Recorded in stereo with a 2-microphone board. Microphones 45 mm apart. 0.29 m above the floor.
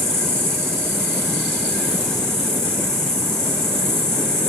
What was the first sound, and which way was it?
An insect, 15° left (ahead or behind).